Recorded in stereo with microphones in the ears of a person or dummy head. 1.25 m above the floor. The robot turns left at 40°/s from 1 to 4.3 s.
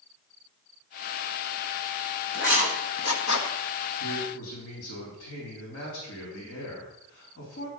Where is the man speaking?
85° left, 4 m; by 7.7 s 75° left (ahead or behind), 4 m.